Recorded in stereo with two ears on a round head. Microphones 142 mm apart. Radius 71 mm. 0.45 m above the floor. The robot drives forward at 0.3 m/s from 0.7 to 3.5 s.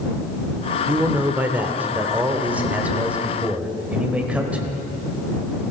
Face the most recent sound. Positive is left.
turn(degrees=-10)  # may be behind; listen again after turning